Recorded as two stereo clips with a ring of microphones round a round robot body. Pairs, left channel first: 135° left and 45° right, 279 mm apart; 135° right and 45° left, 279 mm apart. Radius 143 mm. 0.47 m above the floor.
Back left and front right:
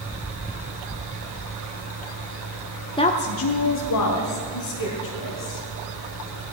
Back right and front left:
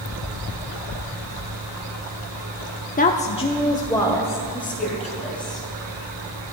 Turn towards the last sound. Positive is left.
turn(degrees=140)